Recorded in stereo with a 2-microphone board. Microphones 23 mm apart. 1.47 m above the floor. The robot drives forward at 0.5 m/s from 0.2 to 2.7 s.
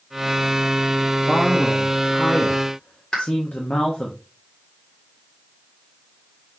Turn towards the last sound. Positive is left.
turn(degrees=40)  # may be behind; listen again after turning